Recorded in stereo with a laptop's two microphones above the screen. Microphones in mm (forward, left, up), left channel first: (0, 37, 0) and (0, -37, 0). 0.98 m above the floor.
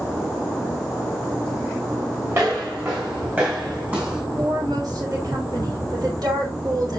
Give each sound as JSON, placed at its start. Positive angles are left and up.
{"t": 2.3, "sound": "footsteps", "side_deg": -35, "distance_m": 5.0}
{"t": 4.4, "sound": "a woman speaking", "side_deg": -65, "distance_m": 3.5}